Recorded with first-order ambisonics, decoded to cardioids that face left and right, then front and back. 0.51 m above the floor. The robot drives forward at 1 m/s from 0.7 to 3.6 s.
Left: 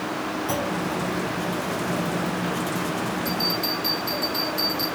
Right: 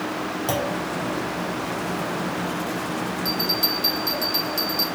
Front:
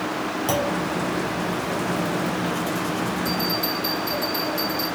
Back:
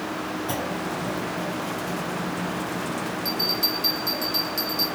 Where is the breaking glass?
No breaking glass in this recording.